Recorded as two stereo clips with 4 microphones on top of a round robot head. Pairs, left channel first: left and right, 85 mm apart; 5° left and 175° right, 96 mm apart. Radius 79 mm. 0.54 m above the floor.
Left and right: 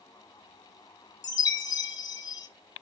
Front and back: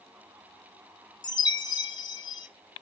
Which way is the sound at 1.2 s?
50° left.